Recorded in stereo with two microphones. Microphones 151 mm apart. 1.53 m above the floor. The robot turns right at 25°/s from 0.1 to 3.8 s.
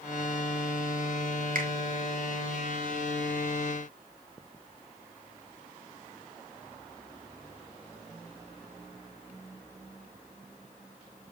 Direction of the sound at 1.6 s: 60° right (ahead or behind).